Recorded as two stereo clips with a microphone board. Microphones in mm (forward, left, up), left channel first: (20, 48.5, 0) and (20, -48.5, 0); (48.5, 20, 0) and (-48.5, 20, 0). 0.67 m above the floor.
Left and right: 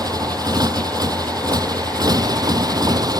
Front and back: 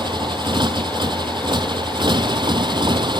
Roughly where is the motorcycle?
Behind right.